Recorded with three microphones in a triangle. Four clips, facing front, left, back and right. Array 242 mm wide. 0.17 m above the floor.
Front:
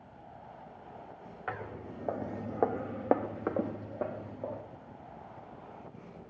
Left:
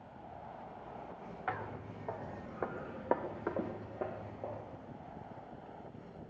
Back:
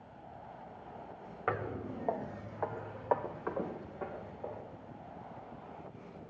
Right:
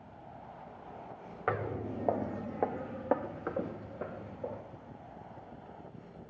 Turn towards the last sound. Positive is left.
turn(degrees=20)